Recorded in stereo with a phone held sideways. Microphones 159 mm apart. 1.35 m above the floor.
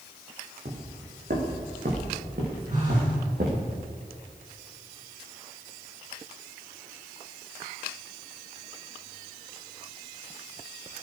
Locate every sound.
0.7 s footsteps: 70° right (ahead or behind), 4.5 m; by 3.7 s 75° right (ahead or behind), 7.5 m
2.7 s a phone buzzing: 55° right (ahead or behind), 7 m